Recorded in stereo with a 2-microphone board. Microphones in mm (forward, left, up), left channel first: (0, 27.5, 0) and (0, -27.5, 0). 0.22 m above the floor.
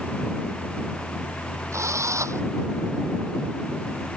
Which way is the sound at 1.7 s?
70° right (ahead or behind).